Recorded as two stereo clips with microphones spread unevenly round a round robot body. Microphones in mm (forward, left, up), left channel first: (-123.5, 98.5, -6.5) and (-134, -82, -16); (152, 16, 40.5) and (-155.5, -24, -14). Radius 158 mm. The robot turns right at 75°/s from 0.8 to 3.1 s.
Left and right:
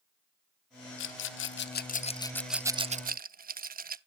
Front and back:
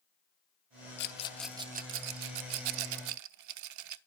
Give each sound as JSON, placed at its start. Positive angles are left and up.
{"t": 1.0, "sound": "a rattle", "azimuth_deg": 65, "distance_m": 0.7}